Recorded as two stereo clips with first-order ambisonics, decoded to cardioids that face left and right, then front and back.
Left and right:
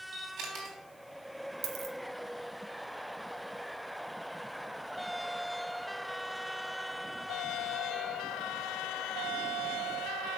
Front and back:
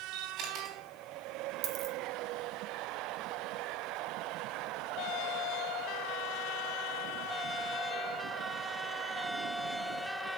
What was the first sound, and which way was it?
A camera shutter, 140° right.